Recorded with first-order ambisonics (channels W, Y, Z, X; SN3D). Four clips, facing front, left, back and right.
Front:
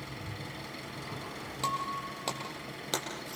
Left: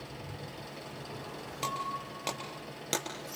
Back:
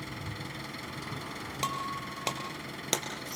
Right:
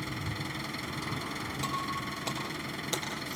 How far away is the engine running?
About 6.5 m.